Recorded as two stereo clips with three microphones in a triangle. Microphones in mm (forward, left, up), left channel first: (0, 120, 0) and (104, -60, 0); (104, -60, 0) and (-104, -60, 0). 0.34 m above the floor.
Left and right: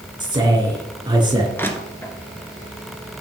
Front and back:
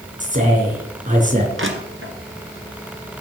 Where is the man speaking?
130° right, 4 m.